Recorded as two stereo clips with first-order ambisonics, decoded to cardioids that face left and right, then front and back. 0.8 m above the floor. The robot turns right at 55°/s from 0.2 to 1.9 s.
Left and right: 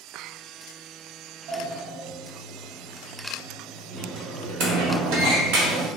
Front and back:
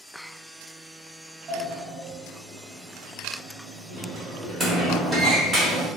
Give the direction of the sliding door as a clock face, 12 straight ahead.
4 o'clock.